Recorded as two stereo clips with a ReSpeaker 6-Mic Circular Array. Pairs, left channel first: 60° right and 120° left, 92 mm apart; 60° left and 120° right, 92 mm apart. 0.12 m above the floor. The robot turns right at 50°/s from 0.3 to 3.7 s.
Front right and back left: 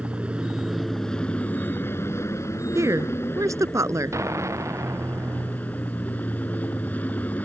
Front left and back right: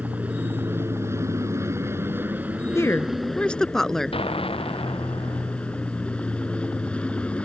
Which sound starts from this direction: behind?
An aircraft, at 0.0 s.